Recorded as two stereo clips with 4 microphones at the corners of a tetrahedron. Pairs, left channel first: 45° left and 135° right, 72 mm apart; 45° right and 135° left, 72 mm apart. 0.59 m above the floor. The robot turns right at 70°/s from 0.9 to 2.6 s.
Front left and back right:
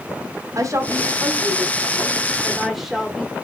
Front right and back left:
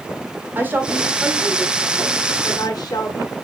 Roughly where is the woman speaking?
Behind.